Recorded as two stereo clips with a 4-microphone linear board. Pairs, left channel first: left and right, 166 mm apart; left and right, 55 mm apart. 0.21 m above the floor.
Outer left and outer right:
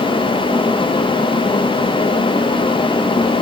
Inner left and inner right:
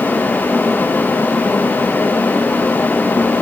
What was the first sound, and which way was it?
Only background noise.